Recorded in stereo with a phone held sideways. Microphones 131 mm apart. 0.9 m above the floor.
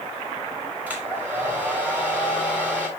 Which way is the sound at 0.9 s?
10° right (ahead or behind).